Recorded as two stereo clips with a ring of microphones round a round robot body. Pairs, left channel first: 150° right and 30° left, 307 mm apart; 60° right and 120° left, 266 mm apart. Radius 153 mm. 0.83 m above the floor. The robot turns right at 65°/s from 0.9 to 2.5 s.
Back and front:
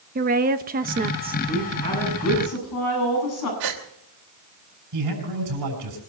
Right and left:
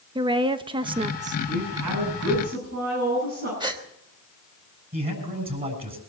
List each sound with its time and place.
0.1 s a woman speaking: 65° left, 1.0 m; by 1.4 s 95° left, 1.0 m
1.5 s a woman speaking: 115° left, 8.5 m; by 3.5 s straight behind, 8.5 m
3.6 s a gasp: 45° left, 3 m
4.9 s a man speaking: 60° left, 7.5 m